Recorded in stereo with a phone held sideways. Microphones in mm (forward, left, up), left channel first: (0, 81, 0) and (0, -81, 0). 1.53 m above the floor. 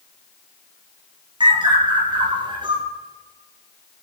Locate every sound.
1.4 s a bird: 30° right (ahead or behind), 3 m